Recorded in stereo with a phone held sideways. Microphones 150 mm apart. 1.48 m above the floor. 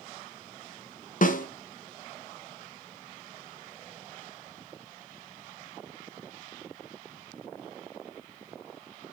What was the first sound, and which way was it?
A snare drum, 60° left (ahead or behind).